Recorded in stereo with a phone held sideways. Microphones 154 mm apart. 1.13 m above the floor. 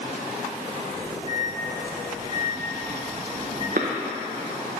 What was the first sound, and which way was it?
A microwave, 40° left (ahead or behind).